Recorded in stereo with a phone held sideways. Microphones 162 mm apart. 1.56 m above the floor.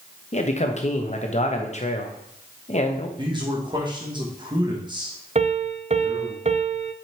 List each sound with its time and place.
0.3 s a man speaking: 45° left (ahead or behind), 1.1 m
3.2 s a man speaking: 30° right (ahead or behind), 1.8 m
5.3 s a piano: 45° right (ahead or behind), 0.6 m